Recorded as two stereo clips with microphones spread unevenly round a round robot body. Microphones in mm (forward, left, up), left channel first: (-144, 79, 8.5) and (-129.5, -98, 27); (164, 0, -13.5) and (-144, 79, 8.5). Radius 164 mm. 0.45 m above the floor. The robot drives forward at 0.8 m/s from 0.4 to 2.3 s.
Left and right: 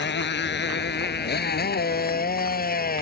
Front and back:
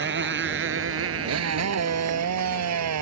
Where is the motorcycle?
110° left; by 3.0 s 130° left.